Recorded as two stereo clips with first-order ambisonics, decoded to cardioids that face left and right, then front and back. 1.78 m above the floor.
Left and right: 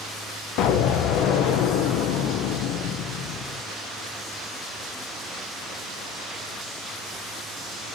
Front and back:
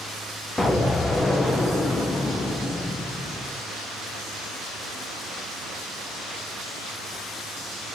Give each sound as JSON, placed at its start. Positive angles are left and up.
{"t": 0.6, "sound": "an explosion", "azimuth_deg": 80, "distance_m": 0.7}